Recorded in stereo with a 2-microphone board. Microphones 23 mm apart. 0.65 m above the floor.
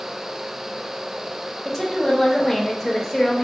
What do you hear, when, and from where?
1.6 s a woman speaking: 5° left (ahead or behind), 0.9 m